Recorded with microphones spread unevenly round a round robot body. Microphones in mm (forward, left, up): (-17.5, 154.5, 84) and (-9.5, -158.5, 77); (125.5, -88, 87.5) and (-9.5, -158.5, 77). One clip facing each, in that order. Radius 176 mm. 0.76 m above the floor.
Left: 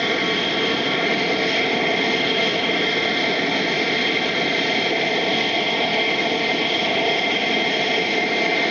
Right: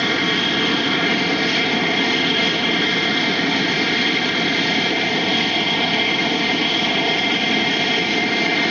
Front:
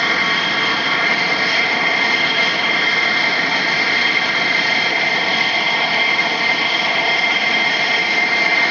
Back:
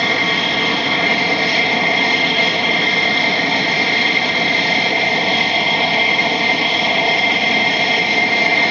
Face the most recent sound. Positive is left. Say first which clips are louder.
# right 1 dB, back 3 dB
turn(degrees=-120)